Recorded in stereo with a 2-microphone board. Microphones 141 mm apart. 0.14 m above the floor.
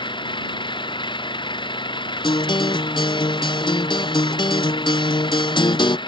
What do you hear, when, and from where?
0.0 s an engine running: 35° left (ahead or behind)
2.2 s a guitar: 35° left (ahead or behind)